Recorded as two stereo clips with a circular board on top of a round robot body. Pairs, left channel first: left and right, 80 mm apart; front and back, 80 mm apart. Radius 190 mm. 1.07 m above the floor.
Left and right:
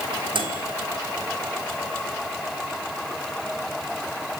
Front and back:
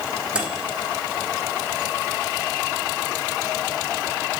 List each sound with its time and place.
0.3 s a microwave: 105° right, 3.5 m